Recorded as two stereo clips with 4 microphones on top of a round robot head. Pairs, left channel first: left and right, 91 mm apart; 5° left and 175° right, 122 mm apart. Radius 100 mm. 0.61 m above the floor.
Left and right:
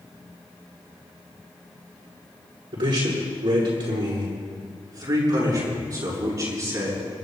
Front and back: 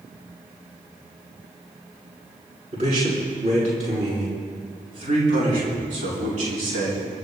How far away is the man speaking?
About 6.5 m.